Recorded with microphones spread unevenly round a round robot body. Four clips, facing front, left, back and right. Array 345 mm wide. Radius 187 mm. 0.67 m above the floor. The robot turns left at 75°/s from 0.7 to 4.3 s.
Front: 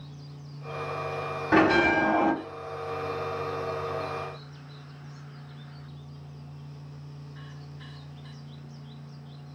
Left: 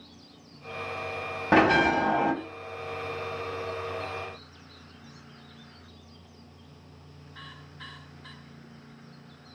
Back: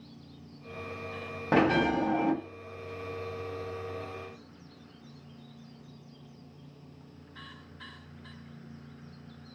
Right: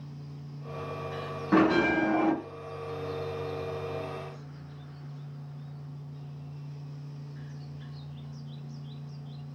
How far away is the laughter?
No laughter in this recording.